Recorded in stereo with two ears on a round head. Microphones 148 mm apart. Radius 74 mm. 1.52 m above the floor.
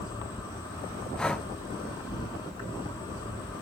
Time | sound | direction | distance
0.0 | an insect | 25° left (ahead or behind) | 10 m
1.2 | breathing | 5° left (ahead or behind) | 0.8 m